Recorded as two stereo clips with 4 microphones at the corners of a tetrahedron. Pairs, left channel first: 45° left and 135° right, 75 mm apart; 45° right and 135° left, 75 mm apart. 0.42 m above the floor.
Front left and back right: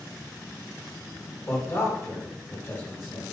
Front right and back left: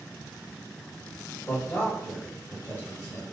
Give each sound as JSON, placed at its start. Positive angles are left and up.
{"t": 1.5, "sound": "a man speaking", "azimuth_deg": 0, "distance_m": 1.2}